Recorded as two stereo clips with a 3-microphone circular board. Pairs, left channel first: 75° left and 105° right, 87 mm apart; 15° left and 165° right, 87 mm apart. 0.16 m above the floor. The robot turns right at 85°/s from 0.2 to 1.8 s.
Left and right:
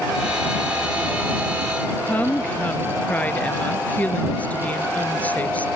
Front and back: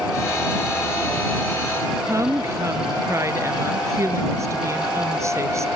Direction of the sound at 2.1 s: 145° left.